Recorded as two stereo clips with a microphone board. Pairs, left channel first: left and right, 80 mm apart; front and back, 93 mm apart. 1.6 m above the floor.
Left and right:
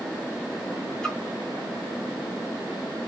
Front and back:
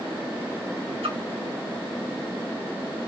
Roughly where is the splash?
Behind.